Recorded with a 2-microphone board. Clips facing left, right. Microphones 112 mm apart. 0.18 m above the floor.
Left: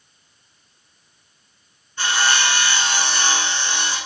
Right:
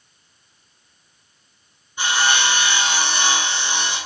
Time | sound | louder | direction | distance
2.0 | sawing | even | 15° right (ahead or behind) | 1.7 m